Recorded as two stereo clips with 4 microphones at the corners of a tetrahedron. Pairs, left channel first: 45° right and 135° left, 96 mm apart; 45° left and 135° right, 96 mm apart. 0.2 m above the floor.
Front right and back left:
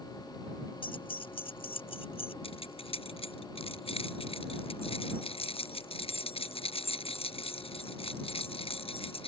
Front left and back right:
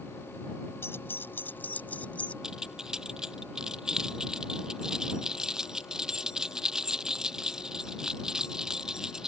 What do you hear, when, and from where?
0.8 s keys jangling: 20° right; by 2.3 s 30° right
2.4 s keys jangling: 50° right